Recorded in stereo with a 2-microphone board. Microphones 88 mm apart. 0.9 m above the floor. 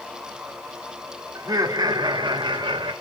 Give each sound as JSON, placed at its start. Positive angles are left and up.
{"t": 1.4, "sound": "laughter", "side_deg": -40, "distance_m": 1.4}